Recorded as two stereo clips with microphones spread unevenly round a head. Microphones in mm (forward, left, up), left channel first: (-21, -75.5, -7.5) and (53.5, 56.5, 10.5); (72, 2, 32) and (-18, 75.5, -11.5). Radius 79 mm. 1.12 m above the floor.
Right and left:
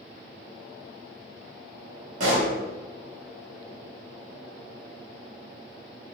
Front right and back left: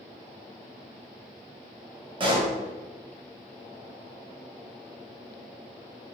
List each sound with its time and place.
2.2 s a pop: 105° left, 1.3 m